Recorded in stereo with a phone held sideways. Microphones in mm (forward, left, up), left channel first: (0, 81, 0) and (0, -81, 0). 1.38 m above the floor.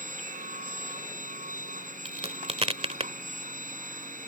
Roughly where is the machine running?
Right.